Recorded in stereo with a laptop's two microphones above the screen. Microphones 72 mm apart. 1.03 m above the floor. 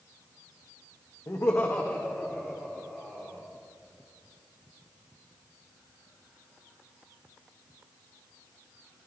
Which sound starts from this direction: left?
Laughter, at 1.3 s.